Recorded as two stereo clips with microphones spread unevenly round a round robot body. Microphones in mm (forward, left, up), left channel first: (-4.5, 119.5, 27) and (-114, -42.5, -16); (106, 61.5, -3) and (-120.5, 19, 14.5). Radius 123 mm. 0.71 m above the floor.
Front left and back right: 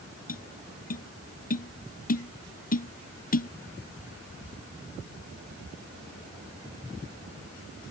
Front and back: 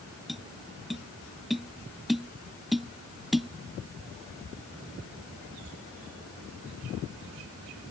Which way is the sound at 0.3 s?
100° left.